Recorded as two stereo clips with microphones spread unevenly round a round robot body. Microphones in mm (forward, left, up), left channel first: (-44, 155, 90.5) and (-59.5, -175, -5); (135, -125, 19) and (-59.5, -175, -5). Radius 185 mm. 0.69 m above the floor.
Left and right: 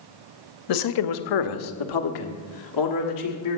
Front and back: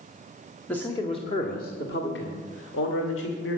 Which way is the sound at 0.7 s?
105° left.